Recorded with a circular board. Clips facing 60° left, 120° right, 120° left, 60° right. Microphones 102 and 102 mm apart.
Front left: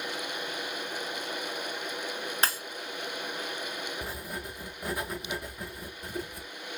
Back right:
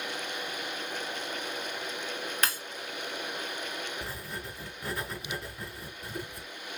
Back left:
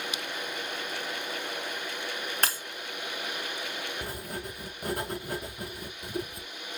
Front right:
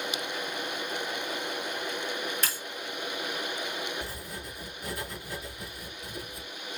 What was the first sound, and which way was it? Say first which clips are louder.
Breaking glass: front left 2 dB, back left 4 dB; 115° left.